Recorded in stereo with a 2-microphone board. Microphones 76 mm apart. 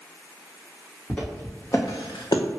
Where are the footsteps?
15° left (ahead or behind), 1.6 m; by 2.4 s 65° left (ahead or behind), 0.8 m.